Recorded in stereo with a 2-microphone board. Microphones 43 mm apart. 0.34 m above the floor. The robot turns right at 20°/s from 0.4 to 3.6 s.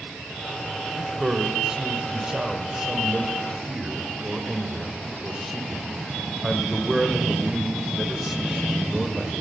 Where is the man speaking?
20° right (ahead or behind), 0.9 m; by 9.3 s 5° right (ahead or behind), 0.9 m.